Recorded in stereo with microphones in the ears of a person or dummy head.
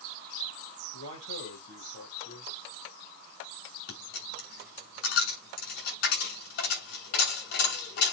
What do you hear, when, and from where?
0.9 s a man speaking: 80° left, 7 m
3.9 s a dropped coin: 60° left (ahead or behind), 8 m